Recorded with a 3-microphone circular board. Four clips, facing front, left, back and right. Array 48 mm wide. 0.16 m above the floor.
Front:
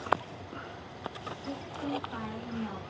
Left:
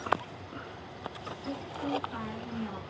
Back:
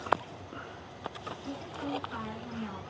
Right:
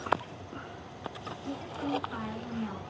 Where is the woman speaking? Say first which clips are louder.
Even, front 1 dB; 135° right, 1.9 m.